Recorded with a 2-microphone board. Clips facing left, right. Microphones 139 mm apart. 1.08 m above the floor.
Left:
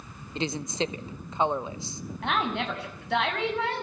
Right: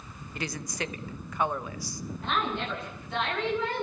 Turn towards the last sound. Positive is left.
turn(degrees=85)